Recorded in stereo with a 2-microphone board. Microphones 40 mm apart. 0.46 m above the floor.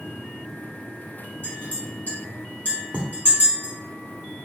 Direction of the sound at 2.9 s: 30° right (ahead or behind).